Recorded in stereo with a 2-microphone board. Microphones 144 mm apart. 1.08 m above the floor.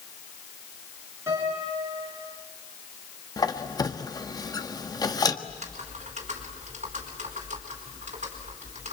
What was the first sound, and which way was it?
A piano, 20° right (ahead or behind).